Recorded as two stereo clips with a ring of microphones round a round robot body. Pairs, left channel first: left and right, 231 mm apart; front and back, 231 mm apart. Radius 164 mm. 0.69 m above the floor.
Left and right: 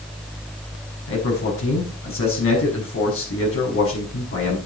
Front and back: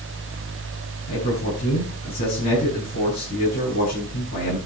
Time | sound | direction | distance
1.1 | a man speaking | 65° left | 5.5 m